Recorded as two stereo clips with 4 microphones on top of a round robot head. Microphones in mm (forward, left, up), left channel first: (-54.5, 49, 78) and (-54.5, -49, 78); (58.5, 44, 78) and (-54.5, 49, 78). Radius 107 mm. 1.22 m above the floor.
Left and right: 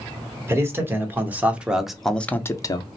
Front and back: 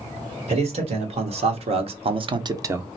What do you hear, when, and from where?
0.5 s a man speaking: 155° right, 1.6 m; by 2.9 s 105° left, 0.6 m